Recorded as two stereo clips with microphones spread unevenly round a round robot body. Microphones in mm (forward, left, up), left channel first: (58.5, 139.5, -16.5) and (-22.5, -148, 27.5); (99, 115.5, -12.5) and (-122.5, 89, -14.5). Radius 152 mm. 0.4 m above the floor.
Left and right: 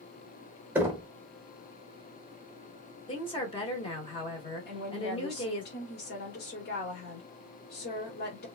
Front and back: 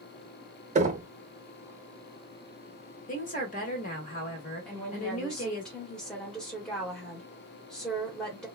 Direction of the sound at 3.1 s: 25° left.